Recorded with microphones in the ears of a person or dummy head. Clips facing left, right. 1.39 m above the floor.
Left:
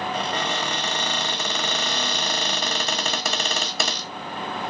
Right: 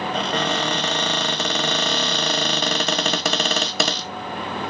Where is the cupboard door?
60° right (ahead or behind), 0.8 m.